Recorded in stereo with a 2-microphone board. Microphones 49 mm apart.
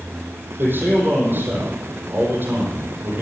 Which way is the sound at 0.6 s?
45° right (ahead or behind).